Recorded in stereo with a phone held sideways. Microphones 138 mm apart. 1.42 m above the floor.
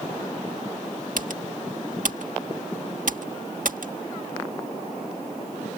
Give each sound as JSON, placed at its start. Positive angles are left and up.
{"t": 1.2, "sound": "typing on a keyboard", "side_deg": -75}